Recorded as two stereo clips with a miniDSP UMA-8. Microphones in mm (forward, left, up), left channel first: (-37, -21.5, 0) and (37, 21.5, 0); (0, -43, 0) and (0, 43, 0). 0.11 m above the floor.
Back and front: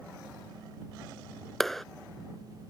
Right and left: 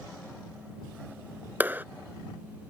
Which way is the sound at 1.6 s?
125° left.